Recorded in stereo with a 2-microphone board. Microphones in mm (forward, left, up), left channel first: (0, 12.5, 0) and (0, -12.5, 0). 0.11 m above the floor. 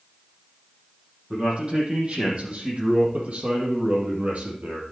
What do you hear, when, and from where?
1.3 s a man speaking: 45° right (ahead or behind), 5 m; by 4.8 s 65° right (ahead or behind), 4 m